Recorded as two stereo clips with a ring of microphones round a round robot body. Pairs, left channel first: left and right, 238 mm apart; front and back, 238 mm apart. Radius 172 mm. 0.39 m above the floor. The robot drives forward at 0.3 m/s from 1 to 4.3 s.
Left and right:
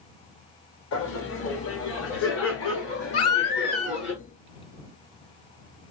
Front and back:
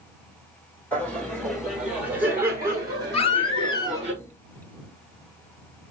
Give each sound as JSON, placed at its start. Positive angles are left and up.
{"t": 0.9, "sound": "laughter", "azimuth_deg": 85, "distance_m": 1.7}
{"t": 3.1, "sound": "a baby crying", "azimuth_deg": 65, "distance_m": 1.5}